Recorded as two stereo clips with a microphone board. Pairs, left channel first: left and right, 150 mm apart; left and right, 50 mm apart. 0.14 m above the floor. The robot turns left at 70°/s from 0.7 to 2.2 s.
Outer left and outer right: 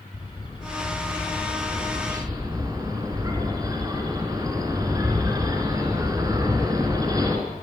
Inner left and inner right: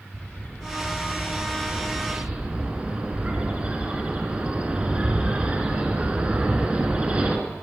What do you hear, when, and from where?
0.1 s a bird: 65° left, 2 m; by 7.4 s 40° right, 2 m